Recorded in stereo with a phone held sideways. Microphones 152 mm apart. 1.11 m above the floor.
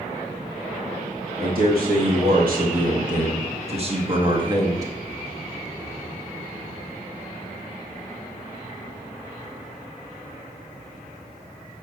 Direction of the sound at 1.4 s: 80° right.